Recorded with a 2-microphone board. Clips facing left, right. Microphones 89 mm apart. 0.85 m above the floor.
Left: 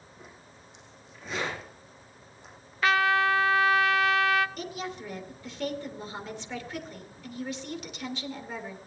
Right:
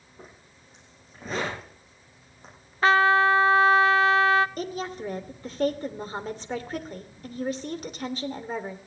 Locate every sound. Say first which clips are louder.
0.2 s a zipper: right 3 dB; 40° right (ahead or behind), 7.5 m
2.8 s a trumpet: right 5 dB; 35° right (ahead or behind), 0.7 m
4.6 s a woman speaking: right 4 dB; 40° right (ahead or behind), 2 m